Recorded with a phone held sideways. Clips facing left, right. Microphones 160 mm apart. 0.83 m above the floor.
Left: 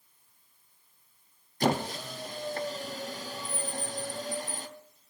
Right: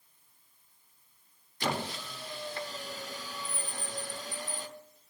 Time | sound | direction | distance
1.6 | a squeak | 45° left (ahead or behind) | 0.6 m